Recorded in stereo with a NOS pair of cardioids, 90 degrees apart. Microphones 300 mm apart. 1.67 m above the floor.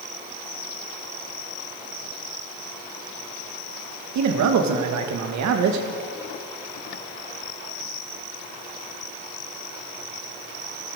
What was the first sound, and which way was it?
A man speaking, 70° right.